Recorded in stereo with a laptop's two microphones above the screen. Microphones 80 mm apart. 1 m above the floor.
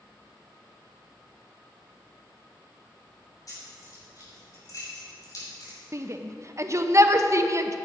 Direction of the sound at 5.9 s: 40° right (ahead or behind).